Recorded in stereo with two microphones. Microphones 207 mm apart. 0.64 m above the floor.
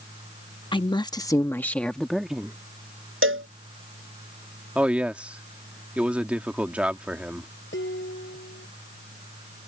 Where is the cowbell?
80° right.